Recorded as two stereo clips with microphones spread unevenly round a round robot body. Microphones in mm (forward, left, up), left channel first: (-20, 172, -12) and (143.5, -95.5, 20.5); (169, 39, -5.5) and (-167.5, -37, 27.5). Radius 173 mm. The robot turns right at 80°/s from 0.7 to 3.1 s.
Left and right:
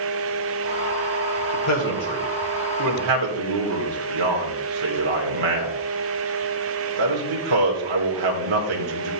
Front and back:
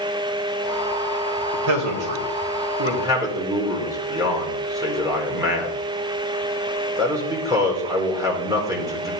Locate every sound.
1.5 s a man speaking: 150° left, 2.5 m; by 9.1 s 85° right, 2.5 m